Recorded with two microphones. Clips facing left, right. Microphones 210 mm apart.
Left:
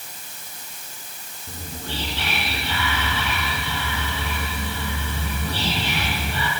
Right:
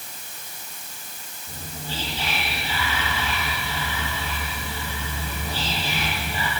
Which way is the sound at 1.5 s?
65° left (ahead or behind).